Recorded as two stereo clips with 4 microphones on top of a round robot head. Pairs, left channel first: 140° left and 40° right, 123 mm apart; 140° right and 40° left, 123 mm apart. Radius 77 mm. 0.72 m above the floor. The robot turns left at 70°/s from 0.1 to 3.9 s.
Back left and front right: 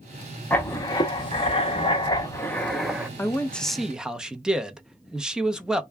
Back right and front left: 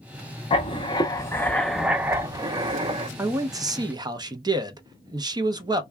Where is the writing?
145° right, 0.9 m; by 3.1 s 35° left, 0.9 m.